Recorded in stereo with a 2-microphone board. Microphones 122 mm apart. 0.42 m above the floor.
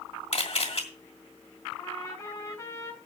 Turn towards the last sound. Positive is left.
turn(degrees=25)  # may be behind; listen again after turning